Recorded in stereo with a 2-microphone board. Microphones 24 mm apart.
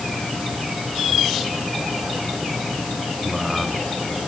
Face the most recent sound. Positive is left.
No sound to turn to.